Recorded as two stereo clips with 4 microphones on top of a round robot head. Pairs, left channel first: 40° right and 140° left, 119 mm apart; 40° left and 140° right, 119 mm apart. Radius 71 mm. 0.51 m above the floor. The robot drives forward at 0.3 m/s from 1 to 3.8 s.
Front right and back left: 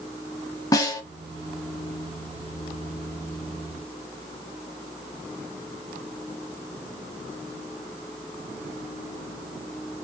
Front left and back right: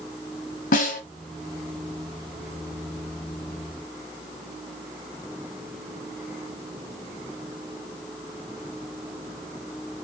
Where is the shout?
No shout in this recording.